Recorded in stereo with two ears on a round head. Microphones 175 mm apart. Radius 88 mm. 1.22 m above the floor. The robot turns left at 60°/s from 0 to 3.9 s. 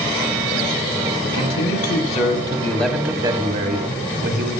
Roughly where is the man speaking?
Left.